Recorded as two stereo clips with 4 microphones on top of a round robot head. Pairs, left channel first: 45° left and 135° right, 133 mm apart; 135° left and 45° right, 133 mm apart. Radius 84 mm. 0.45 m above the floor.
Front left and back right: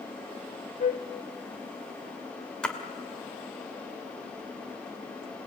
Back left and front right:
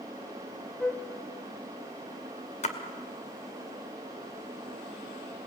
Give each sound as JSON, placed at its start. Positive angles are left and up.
{"t": 0.8, "sound": "a flute", "azimuth_deg": 50, "distance_m": 1.7}
{"t": 2.6, "sound": "a splash", "azimuth_deg": 130, "distance_m": 2.5}